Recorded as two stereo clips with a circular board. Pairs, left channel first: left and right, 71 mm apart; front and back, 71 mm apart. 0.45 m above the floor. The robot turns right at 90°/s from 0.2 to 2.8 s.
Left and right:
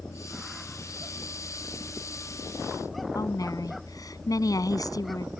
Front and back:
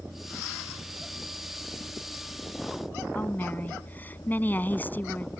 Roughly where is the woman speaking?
Ahead left.